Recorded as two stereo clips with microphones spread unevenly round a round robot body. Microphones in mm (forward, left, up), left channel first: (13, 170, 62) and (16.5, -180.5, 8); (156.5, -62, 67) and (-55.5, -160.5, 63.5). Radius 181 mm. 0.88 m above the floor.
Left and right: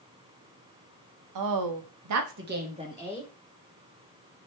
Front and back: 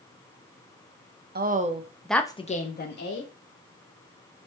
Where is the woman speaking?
110° right, 1.4 m; by 3.3 s 5° right, 1.9 m.